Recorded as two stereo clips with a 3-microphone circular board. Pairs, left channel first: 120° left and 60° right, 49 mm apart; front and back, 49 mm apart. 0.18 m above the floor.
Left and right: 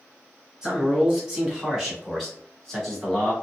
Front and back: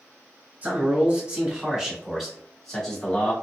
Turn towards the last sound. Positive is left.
turn(degrees=50)